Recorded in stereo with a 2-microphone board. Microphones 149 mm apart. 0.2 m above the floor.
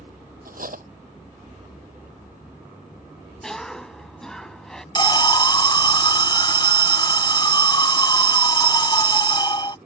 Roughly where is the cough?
Centre.